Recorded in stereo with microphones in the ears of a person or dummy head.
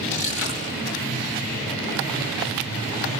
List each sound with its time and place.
0.1 s crushing: 75° left (ahead or behind), 4 m